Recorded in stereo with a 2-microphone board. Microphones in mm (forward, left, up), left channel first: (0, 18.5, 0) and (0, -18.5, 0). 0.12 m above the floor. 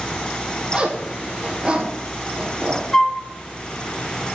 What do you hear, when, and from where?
0.7 s a zipper: 30° right (ahead or behind), 2.5 m
2.9 s a flute: 10° left (ahead or behind), 1.2 m